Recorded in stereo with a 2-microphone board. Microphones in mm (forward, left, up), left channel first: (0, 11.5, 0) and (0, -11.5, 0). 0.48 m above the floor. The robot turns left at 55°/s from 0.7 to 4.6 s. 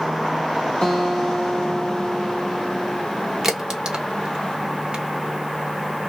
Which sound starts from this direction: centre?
A crack, at 3.4 s.